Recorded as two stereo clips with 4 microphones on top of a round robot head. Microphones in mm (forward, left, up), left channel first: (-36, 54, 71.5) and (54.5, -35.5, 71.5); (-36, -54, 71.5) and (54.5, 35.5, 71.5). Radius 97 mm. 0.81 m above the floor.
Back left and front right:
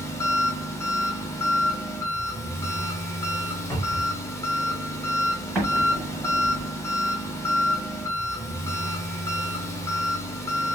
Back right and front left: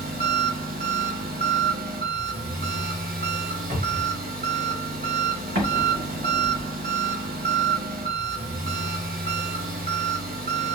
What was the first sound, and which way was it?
An engine running, 65° left.